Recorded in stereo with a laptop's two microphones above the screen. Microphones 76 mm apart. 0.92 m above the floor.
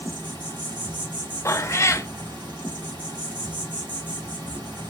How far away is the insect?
About 1.2 m.